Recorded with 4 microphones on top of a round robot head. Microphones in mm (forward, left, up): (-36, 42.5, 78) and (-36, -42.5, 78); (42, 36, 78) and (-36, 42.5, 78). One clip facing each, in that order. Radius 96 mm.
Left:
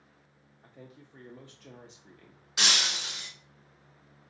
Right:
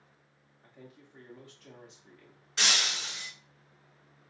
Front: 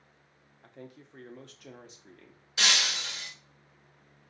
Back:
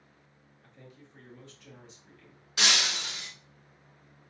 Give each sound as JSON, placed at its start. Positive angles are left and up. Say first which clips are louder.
{"t": 0.6, "sound": "a man speaking", "louder": "left 2 dB, front 6 dB", "azimuth_deg": 20, "distance_m": 0.6}
{"t": 2.6, "sound": "breaking glass", "louder": "left 1 dB, even", "azimuth_deg": 165, "distance_m": 1.7}